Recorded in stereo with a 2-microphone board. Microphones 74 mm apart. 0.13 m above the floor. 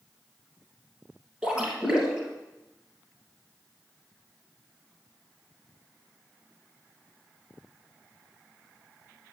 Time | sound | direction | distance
1.4 | a splash | 15° right (ahead or behind) | 2.5 m